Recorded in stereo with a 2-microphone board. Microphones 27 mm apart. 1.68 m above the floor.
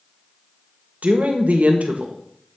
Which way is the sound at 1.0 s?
75° right (ahead or behind).